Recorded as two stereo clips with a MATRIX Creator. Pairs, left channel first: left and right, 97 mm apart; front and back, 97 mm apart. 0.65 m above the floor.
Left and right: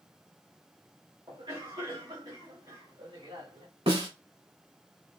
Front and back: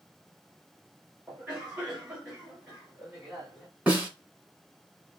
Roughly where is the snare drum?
Right.